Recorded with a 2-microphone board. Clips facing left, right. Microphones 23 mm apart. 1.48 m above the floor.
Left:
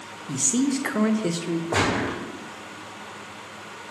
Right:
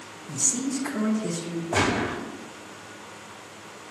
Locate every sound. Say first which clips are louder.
0.3 s a man speaking: left 4 dB; 75° left (ahead or behind), 0.6 m
1.7 s a gunshot: right 1 dB; 55° left (ahead or behind), 2 m